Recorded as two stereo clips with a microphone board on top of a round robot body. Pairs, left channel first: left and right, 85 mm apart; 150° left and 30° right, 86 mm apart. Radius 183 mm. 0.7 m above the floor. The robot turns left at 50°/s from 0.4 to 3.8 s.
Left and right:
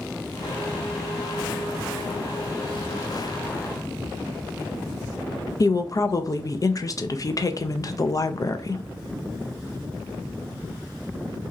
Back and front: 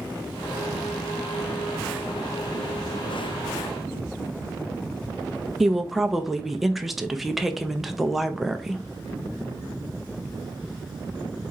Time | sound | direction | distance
5.6 | a woman speaking | 55° left | 0.7 m